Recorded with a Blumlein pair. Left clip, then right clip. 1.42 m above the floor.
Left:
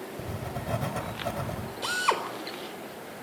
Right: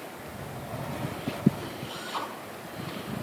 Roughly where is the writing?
Ahead left.